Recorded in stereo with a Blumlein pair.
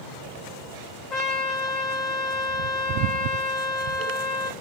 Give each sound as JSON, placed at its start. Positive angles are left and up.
{"t": 1.1, "sound": "a trumpet", "azimuth_deg": 20, "distance_m": 1.0}